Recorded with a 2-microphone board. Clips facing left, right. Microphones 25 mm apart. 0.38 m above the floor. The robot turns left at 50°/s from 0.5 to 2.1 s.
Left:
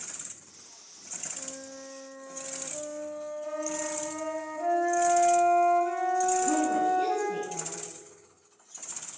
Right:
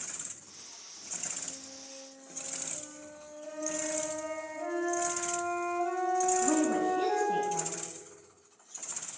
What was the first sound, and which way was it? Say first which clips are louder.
A flute: left 3 dB; 95° left.